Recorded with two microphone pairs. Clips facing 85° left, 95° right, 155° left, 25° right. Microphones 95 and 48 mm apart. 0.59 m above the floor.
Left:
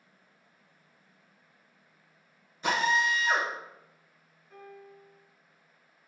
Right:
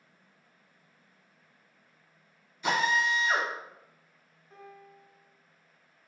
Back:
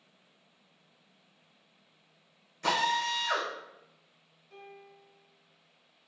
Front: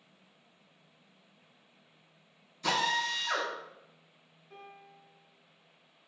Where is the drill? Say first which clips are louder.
Even, back 1 dB; 135° left, 1.5 m.